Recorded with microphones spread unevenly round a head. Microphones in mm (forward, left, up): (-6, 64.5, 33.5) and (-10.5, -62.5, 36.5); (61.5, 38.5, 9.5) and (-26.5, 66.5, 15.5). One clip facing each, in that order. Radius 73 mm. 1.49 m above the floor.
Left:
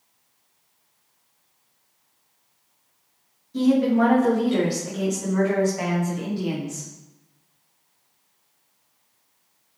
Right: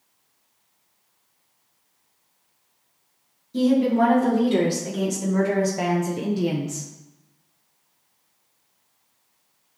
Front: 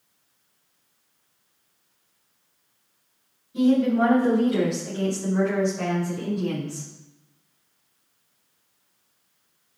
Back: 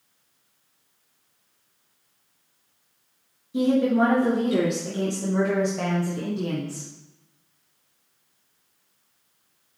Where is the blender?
No blender in this recording.